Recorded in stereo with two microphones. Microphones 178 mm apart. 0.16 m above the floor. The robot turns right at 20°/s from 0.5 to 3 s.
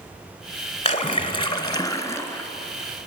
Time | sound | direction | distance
0.8 | a splash | 135° left | 0.8 m